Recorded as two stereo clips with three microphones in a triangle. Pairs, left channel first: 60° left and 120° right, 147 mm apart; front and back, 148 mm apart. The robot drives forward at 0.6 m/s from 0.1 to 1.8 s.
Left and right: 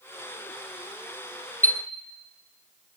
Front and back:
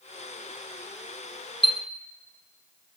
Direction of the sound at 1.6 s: 45° left.